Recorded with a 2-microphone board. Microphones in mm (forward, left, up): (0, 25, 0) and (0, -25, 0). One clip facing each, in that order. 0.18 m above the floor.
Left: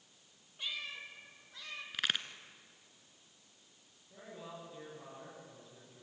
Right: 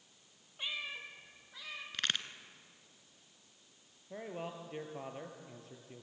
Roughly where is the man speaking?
Right.